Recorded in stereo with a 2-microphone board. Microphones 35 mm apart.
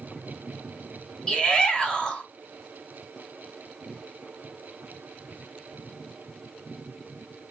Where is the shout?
25° left (ahead or behind), 1.1 m.